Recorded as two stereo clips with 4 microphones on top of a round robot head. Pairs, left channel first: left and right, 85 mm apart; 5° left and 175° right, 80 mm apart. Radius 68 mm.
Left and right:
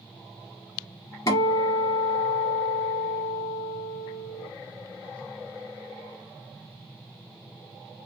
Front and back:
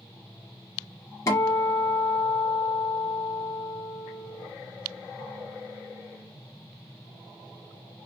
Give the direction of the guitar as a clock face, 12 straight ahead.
10 o'clock.